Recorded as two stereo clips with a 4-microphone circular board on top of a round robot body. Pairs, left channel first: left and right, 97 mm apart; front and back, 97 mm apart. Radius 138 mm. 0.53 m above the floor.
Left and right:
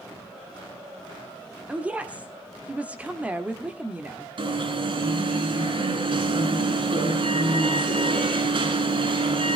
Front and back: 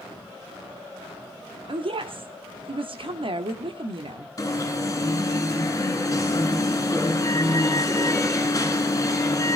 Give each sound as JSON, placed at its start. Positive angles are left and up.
{"t": 1.7, "sound": "a woman speaking", "azimuth_deg": -165, "distance_m": 1.5}
{"t": 4.4, "sound": "an alarm", "azimuth_deg": -60, "distance_m": 6.0}